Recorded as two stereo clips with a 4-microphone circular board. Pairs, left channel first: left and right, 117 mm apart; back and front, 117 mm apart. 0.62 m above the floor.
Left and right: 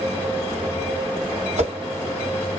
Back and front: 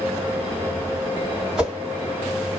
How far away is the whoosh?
About 1.7 m.